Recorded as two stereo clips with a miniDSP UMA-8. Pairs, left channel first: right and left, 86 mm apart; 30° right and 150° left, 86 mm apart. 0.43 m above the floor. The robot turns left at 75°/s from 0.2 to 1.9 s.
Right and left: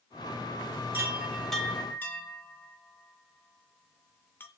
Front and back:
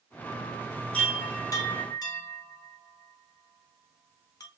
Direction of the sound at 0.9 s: 40° left.